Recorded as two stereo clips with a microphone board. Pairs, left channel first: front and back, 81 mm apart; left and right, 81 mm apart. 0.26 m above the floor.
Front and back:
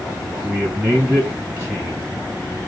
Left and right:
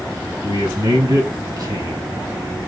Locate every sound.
0.4 s a man speaking: 110° right, 2.5 m